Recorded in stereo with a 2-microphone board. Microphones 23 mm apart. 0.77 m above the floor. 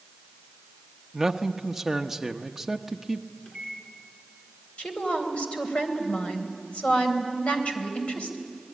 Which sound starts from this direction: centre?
A man speaking, at 1.1 s.